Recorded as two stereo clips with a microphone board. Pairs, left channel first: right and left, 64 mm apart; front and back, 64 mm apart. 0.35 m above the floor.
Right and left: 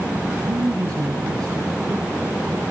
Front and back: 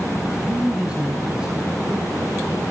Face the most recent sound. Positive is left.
turn(degrees=100)